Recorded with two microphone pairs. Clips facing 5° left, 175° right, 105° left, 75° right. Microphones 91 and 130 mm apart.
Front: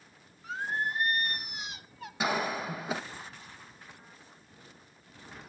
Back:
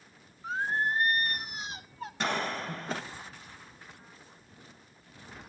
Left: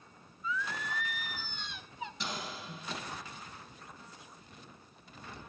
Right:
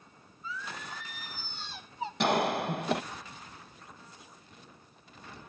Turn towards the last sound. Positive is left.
turn(degrees=-75)